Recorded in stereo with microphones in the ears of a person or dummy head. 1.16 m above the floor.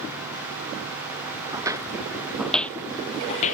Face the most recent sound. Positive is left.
turn(degrees=30)  # may be behind; listen again after turning